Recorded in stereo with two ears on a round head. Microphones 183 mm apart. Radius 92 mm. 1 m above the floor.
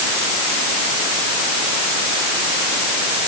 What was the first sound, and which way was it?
Only background noise.